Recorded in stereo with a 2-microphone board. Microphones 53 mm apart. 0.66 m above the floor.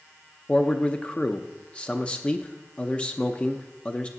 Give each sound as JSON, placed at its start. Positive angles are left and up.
{"t": 0.5, "sound": "a man speaking", "side_deg": 20, "distance_m": 0.6}